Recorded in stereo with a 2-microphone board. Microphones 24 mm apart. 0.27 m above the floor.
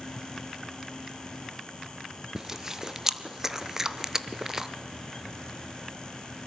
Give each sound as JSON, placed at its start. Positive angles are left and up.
{"t": 2.4, "sound": "chewing", "side_deg": -15, "distance_m": 0.8}